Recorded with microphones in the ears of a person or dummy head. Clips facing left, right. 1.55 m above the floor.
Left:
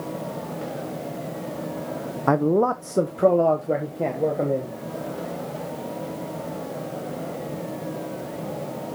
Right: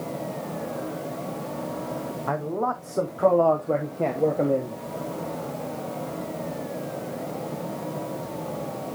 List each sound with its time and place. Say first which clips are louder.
2.3 s a man speaking: left 9 dB; 65° left (ahead or behind), 0.6 m; by 4.8 s centre (ahead or behind), 1.4 m